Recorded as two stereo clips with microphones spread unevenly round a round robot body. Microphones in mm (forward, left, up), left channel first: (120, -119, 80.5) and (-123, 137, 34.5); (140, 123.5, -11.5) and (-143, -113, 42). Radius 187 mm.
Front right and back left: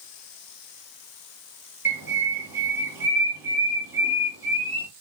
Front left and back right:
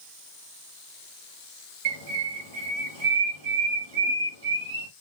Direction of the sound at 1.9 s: 145° right.